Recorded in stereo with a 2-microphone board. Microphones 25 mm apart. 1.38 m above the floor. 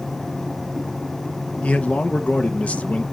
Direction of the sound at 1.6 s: 60° left (ahead or behind).